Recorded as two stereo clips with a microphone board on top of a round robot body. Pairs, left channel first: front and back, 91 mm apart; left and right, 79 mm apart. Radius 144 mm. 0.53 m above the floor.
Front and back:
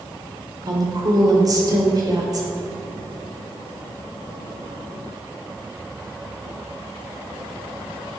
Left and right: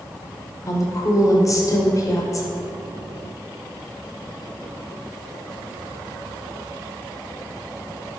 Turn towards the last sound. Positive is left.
turn(degrees=135)